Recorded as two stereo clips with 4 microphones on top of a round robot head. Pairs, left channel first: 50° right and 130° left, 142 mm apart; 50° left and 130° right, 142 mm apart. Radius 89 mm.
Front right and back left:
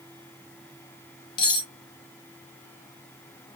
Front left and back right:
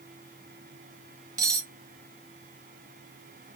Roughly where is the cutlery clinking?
Right.